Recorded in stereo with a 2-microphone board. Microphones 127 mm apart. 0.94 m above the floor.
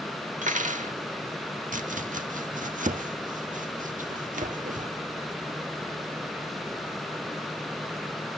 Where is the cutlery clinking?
75° right (ahead or behind), 1.0 m.